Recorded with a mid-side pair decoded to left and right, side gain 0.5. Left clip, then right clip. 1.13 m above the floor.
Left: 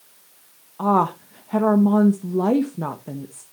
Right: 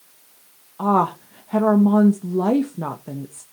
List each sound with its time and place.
0.8 s a woman speaking: straight ahead, 1.1 m